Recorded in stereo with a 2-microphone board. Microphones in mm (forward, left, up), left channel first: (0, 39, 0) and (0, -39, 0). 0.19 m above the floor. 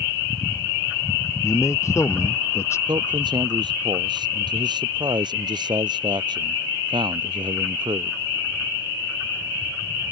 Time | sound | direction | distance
1.4 | a man speaking | 35° left (ahead or behind) | ?
2.9 | a man speaking | 60° right (ahead or behind) | ?